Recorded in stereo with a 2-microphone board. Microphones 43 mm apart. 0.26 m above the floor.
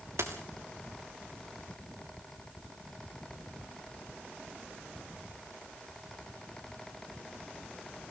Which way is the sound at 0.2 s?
85° right.